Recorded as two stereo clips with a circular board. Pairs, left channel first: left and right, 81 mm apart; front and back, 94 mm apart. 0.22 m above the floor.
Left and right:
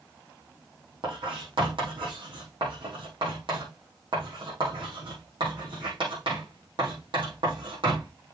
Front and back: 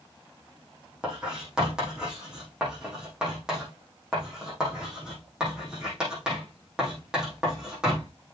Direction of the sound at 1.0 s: 100° right.